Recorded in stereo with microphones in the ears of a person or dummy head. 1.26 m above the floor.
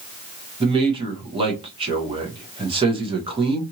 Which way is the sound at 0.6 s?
20° right (ahead or behind).